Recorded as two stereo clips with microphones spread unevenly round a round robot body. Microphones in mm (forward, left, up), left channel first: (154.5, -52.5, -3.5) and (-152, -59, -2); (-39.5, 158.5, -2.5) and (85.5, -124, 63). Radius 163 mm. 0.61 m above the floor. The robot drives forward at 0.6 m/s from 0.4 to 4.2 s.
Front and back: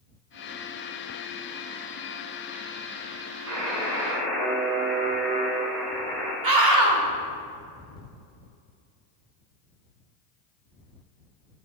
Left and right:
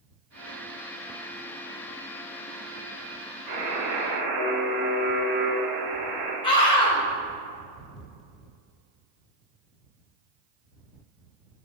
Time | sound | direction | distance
3.5 | a buzzer | 145° right | 3 m
6.4 | a scream | 175° right | 1.9 m